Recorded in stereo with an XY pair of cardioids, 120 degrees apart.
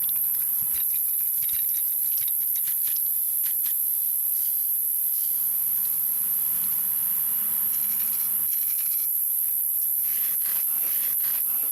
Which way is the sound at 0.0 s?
45° right.